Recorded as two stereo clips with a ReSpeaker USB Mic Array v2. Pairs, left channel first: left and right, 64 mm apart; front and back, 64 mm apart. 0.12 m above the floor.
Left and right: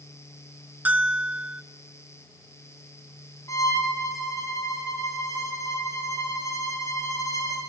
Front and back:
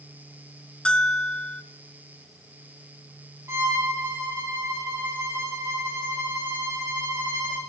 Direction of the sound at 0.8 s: 60° right.